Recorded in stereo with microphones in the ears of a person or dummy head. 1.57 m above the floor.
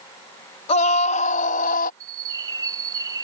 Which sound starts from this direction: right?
A bird, at 2.0 s.